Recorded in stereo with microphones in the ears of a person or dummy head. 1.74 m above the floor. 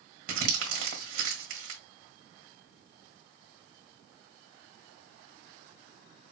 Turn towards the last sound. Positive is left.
turn(degrees=-55)  # may be behind; listen again after turning